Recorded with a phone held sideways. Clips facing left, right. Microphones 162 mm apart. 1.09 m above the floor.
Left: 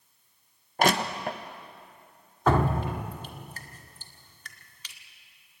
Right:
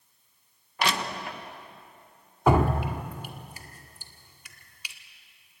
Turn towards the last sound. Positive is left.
turn(degrees=-10)  # may be behind; listen again after turning